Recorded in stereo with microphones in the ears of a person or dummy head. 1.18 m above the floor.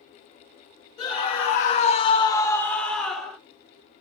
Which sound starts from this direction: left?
A scream, at 1.0 s.